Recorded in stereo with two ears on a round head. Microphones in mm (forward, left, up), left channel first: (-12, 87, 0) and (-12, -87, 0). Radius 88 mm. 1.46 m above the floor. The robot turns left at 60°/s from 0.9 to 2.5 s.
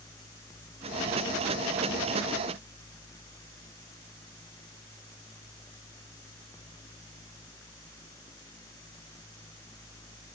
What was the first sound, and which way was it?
Only background noise.